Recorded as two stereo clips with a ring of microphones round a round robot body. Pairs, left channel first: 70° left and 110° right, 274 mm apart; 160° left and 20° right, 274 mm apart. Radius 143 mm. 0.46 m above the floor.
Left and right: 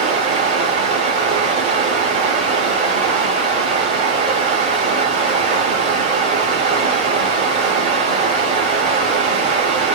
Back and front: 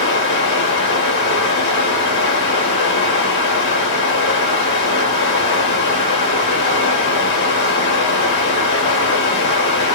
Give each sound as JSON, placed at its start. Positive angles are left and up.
{"t": 0.0, "sound": "running water", "azimuth_deg": -170, "distance_m": 1.1}